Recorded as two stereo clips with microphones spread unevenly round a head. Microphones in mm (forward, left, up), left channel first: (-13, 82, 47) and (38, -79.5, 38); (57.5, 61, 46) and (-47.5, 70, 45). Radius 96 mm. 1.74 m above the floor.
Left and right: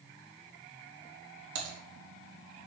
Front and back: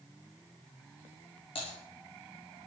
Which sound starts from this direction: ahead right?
Typing on a keyboard, at 1.6 s.